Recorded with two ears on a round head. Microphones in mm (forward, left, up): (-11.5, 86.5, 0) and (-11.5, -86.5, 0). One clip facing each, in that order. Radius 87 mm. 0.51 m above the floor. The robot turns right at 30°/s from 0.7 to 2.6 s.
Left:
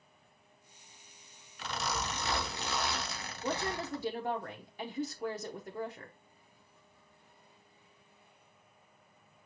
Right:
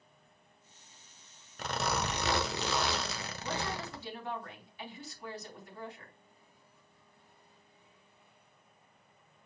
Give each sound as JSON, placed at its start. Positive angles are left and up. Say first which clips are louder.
{"t": 1.6, "sound": "a zipper", "louder": "right 3 dB", "azimuth_deg": -135, "distance_m": 0.8}
{"t": 3.4, "sound": "a woman speaking", "louder": "left 3 dB", "side_deg": 40, "distance_m": 0.9}